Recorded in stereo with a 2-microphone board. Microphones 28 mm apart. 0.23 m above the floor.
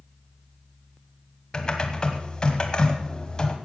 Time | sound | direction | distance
1.5 | typing on a keyboard | 30° left (ahead or behind) | 1.7 m